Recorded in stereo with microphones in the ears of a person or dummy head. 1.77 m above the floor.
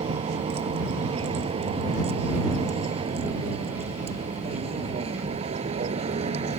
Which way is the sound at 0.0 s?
30° right (ahead or behind).